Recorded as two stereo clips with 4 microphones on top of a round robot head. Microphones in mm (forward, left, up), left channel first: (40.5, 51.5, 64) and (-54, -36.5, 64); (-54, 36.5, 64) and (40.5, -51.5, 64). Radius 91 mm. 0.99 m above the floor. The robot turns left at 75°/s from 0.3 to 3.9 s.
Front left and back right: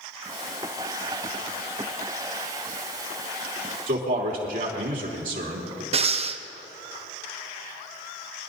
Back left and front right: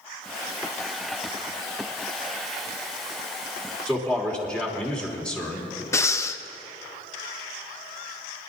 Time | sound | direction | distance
3.9 | a man speaking | 140° right | 3 m
5.9 | breathing | 160° right | 0.7 m